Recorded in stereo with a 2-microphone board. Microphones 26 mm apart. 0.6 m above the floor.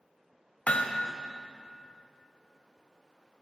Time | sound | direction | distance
0.7 | hammering | 60° left (ahead or behind) | 0.6 m